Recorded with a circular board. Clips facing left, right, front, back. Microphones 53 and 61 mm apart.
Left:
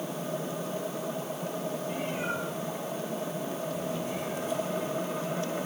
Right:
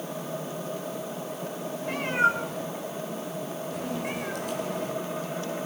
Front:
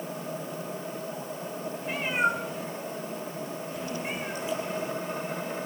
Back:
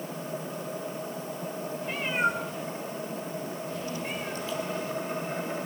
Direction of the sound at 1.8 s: 85° right.